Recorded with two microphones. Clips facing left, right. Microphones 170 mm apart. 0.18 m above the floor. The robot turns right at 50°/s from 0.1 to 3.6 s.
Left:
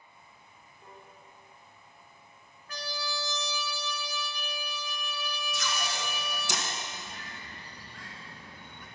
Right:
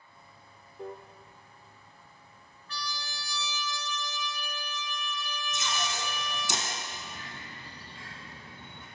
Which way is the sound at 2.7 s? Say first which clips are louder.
Left 4 dB; 125° left.